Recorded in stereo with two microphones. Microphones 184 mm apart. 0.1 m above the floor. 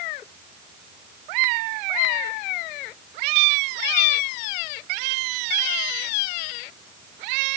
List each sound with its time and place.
Only background noise.